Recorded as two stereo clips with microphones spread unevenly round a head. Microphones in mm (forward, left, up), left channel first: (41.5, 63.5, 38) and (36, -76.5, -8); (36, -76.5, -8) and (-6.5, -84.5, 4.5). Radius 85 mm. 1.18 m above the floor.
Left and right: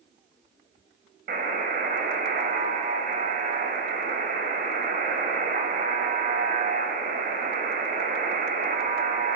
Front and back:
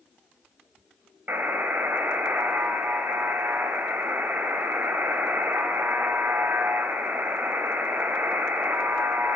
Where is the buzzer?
135° right, 4.5 m.